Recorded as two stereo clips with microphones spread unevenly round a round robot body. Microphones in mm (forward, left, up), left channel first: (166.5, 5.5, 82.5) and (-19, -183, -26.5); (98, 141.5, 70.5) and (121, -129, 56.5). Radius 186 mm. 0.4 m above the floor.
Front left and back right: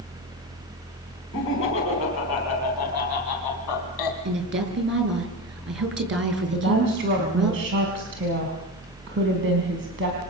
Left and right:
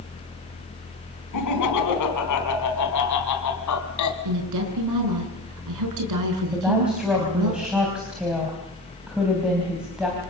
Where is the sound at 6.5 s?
170° right, 3.5 m.